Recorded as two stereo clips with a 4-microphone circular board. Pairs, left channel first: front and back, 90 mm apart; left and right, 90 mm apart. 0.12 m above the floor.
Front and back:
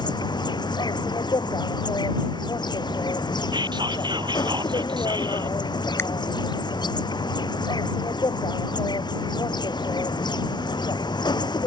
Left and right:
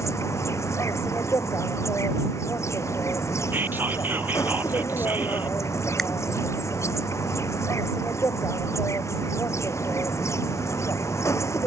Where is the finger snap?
5° left.